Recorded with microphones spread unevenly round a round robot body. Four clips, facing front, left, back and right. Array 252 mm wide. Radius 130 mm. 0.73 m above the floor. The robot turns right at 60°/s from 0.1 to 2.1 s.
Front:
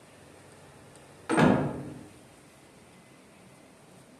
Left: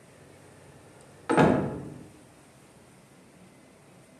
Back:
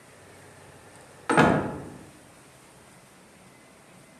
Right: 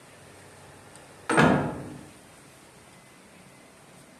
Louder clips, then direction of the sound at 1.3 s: Even, back 2 dB; 175° right.